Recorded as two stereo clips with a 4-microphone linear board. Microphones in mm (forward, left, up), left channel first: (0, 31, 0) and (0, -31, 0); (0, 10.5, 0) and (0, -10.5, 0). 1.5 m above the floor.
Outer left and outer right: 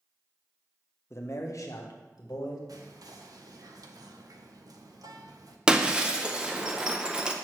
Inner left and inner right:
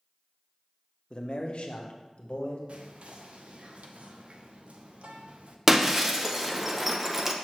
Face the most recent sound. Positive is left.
turn(degrees=-15)  # may be behind; listen again after turning